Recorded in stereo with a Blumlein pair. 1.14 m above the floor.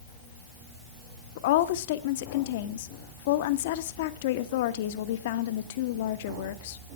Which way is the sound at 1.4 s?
55° left.